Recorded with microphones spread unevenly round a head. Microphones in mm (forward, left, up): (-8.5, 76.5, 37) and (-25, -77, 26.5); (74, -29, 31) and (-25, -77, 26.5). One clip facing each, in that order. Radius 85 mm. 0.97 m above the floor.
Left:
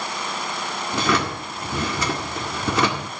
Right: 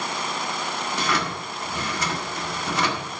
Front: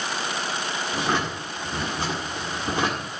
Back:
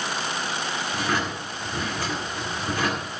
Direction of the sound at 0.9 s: 100° left.